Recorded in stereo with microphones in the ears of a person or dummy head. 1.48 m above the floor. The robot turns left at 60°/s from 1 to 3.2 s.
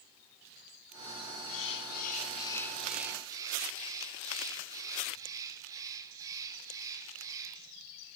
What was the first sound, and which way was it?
A bird, 85° left.